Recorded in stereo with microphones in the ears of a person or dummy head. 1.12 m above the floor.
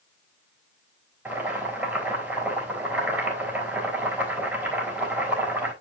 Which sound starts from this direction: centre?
Boiling, at 1.2 s.